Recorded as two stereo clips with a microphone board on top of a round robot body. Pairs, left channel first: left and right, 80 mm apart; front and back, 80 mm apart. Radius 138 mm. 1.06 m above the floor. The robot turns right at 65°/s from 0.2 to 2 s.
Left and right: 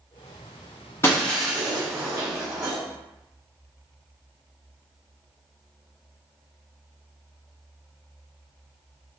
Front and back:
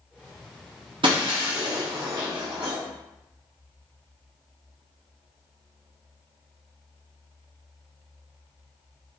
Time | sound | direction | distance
1.0 | breaking glass | 155° left | 0.7 m